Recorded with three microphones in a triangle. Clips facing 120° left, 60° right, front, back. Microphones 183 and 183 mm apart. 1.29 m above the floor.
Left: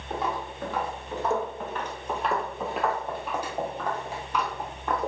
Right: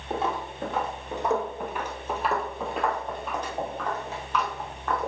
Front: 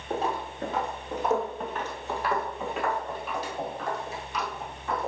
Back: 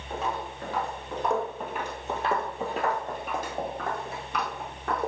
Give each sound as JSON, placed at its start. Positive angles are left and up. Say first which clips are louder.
{"t": 0.1, "sound": "footsteps", "louder": "right 2 dB, front 3 dB", "azimuth_deg": -15, "distance_m": 1.6}